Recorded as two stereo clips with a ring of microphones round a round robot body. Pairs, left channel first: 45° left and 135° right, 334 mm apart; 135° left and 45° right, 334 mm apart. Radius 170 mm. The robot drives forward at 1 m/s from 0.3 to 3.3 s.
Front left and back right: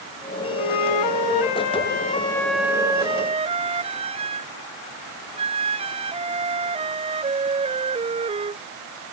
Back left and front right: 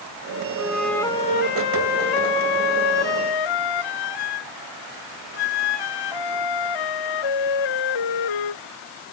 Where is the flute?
40° left; by 8.6 s 150° left.